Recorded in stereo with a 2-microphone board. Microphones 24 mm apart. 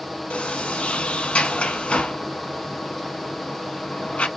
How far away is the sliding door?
About 0.6 m.